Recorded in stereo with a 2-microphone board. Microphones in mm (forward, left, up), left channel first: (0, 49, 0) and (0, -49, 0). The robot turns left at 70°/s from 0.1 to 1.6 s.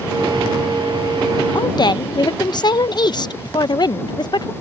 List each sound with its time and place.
1.6 s a woman speaking: 50° left (ahead or behind); by 4.5 s 45° left (ahead or behind)